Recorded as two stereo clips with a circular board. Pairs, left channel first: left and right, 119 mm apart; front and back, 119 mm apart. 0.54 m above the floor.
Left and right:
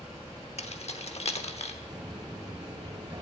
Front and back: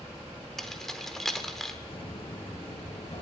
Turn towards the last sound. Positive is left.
turn(degrees=-35)